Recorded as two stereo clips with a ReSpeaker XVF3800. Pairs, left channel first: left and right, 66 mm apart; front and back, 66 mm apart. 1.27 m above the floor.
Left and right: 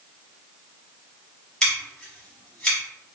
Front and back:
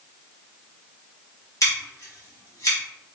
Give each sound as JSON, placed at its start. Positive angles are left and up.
{"t": 1.6, "sound": "scissors", "azimuth_deg": 10, "distance_m": 1.5}